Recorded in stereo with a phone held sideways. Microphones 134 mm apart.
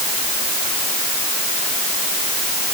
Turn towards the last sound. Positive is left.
No sound to turn to.